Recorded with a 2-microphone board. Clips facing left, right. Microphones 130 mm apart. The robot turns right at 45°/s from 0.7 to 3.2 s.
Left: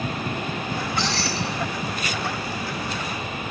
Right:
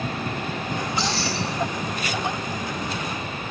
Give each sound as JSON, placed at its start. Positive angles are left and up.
{"t": 0.7, "sound": "keys jangling", "azimuth_deg": 110, "distance_m": 3.5}